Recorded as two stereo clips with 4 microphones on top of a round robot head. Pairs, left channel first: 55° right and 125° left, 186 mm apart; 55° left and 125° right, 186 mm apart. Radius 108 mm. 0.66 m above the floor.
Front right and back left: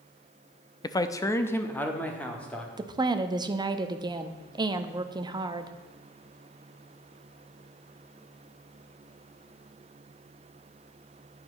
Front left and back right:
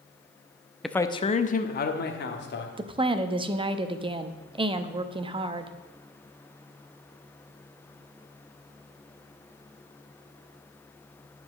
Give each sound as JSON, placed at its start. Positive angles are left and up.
{"t": 0.8, "sound": "a man speaking", "azimuth_deg": -35, "distance_m": 0.5}
{"t": 2.8, "sound": "a woman speaking", "azimuth_deg": -175, "distance_m": 0.6}